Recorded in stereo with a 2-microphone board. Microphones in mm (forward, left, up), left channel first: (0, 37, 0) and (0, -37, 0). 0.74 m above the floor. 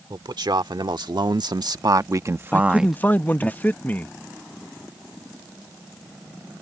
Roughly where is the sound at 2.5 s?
Left.